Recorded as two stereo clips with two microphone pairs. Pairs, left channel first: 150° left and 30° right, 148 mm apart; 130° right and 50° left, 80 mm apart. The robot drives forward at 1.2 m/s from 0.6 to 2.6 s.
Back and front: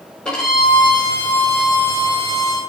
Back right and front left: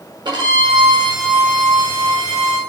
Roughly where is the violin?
Ahead left.